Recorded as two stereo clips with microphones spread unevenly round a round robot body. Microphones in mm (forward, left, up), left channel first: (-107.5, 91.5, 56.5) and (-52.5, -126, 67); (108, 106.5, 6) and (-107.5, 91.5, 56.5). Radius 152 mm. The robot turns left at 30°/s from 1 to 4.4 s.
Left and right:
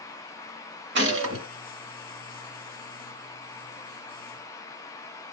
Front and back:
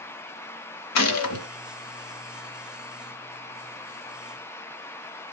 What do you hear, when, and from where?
0.9 s a gunshot: 25° right, 0.8 m; by 1.5 s 40° right, 0.8 m